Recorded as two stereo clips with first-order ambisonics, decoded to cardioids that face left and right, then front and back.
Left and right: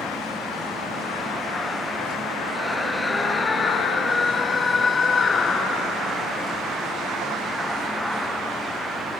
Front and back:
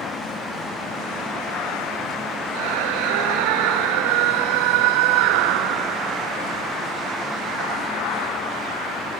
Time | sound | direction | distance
2.5 | a scream | 175° left | ?